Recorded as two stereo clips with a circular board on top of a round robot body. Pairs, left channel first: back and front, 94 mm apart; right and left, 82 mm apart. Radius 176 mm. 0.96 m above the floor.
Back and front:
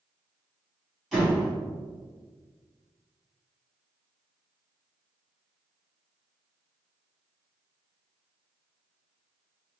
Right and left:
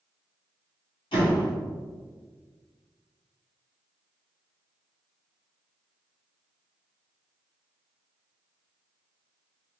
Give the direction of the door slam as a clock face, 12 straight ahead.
3 o'clock.